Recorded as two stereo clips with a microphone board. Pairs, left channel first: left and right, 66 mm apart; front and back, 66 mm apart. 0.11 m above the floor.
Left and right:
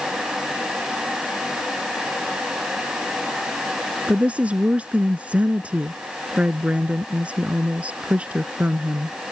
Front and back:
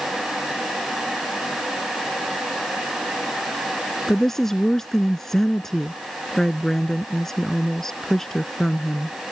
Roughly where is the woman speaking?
Right.